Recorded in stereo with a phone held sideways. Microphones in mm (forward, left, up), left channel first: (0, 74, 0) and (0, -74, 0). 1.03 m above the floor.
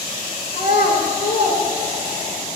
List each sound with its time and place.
0.5 s a child speaking: 80° left, 3 m